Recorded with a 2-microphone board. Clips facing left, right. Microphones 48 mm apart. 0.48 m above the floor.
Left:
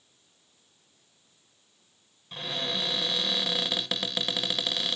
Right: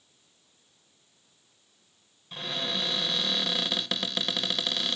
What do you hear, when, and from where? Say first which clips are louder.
2.3 s a cupboard door: even; centre (ahead or behind), 0.6 m